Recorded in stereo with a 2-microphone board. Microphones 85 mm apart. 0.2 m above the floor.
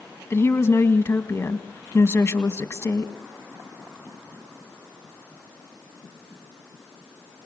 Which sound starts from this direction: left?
A woman speaking, at 0.3 s.